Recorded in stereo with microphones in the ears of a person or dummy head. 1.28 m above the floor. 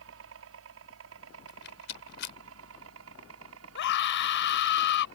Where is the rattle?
65° left (ahead or behind).